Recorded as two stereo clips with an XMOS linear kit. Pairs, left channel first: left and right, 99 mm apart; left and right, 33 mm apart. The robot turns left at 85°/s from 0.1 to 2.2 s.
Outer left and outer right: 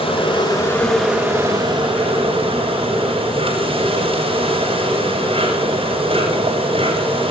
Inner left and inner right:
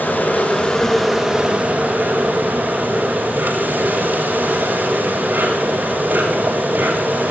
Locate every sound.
0.0 s an insect: 75° left, 7 m; by 7.3 s 105° right, 7 m